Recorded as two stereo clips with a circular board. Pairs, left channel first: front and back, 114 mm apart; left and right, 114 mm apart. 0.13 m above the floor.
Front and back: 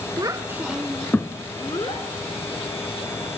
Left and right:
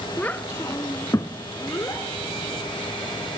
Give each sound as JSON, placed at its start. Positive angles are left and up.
{"t": 0.2, "sound": "a child speaking", "azimuth_deg": 160, "distance_m": 0.7}